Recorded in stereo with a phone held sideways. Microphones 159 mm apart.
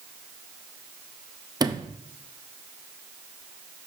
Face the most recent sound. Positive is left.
turn(degrees=-25)  # may be behind; listen again after turning